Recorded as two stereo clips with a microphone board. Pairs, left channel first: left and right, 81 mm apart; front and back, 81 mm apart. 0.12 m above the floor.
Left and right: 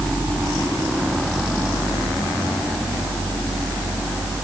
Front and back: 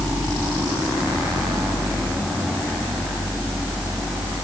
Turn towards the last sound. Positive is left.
No sound to turn to.